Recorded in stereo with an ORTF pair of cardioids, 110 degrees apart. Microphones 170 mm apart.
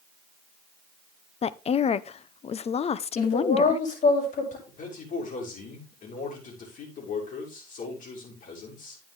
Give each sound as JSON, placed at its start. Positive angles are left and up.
{"t": 1.4, "sound": "a woman speaking", "azimuth_deg": 40, "distance_m": 0.8}
{"t": 3.2, "sound": "a woman speaking", "azimuth_deg": 50, "distance_m": 7.0}
{"t": 4.7, "sound": "a man speaking", "azimuth_deg": 50, "distance_m": 6.5}